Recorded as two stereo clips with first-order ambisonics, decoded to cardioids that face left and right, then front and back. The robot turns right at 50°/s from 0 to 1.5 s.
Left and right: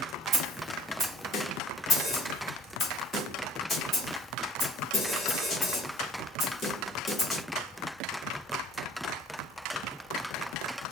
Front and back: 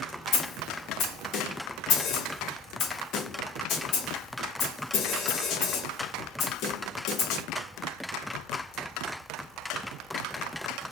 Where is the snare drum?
30° right, 2.5 m; by 7.4 s 30° left, 2.5 m.